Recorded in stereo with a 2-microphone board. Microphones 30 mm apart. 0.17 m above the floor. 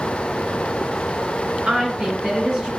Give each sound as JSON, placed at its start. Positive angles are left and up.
{"t": 1.7, "sound": "a woman speaking", "side_deg": -35, "distance_m": 1.5}